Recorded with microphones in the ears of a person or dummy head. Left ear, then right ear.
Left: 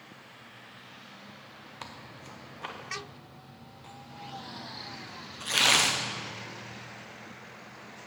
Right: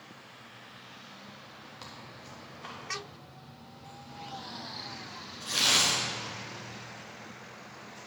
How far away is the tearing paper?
About 0.6 m.